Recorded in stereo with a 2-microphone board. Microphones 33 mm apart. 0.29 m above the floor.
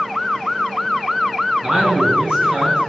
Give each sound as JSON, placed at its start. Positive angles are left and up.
{"t": 1.6, "sound": "a man speaking", "side_deg": -35, "distance_m": 5.5}